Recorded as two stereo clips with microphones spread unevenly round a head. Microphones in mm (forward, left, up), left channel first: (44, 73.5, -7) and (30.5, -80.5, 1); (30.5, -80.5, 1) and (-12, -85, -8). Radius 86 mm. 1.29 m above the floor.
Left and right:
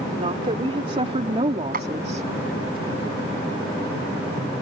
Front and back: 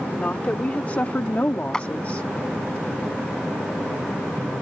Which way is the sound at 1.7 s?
65° right.